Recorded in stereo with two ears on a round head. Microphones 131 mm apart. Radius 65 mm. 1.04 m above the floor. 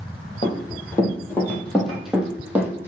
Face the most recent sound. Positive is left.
turn(degrees=-15)  # may be behind; listen again after turning